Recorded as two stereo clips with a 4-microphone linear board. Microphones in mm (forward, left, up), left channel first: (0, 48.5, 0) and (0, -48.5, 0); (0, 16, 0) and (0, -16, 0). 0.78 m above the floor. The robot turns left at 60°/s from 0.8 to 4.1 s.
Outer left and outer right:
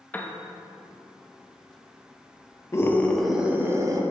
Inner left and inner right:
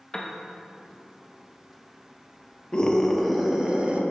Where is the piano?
15° left (ahead or behind), 0.6 m.